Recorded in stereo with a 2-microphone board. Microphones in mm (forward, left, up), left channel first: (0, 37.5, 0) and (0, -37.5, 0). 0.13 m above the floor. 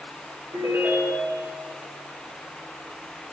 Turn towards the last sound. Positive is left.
turn(degrees=-40)  # may be behind; listen again after turning